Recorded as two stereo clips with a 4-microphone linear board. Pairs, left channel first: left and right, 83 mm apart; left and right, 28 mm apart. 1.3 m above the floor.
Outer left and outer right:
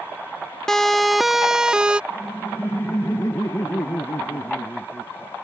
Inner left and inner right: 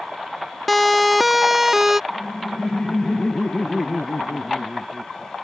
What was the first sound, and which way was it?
A siren, 5° left (ahead or behind).